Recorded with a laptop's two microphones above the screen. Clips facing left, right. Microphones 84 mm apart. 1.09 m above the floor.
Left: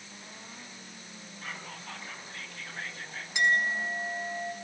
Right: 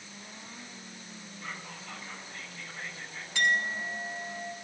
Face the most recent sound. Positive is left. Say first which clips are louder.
# left 2 dB
turn(degrees=20)  # may be behind; listen again after turning